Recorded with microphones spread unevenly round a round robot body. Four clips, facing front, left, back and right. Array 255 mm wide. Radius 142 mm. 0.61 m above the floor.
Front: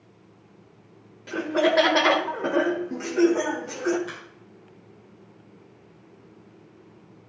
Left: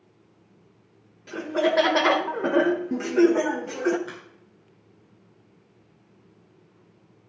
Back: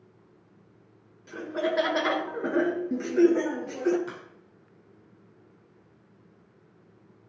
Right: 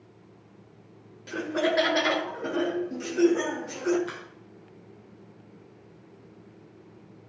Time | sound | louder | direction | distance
1.3 | laughter | left 3 dB, front 7 dB | 5° right | 0.7 m
4.1 | a crack | right 1 dB, front 1 dB | 165° right | 6.5 m